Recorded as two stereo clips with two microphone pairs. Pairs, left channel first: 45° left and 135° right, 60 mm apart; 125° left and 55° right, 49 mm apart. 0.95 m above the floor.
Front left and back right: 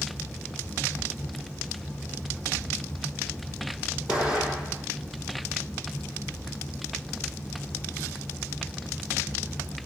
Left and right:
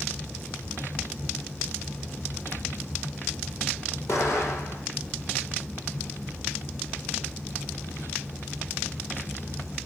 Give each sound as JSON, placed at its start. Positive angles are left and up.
{"t": 4.1, "sound": "an explosion", "azimuth_deg": 155, "distance_m": 8.0}